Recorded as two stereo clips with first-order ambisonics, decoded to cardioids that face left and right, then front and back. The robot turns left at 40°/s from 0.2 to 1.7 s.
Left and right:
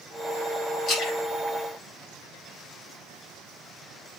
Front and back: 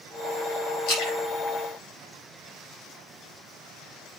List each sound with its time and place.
0.9 s a splash: 25° left, 6.5 m; by 2.9 s 5° right, 6.5 m